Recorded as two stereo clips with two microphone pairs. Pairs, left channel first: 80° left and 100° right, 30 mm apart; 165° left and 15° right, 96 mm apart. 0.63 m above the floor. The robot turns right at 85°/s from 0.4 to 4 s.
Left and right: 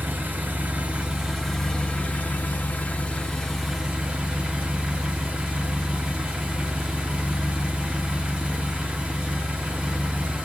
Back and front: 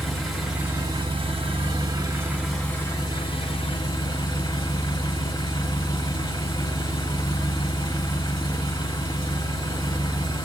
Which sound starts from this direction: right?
An engine running, at 0.0 s.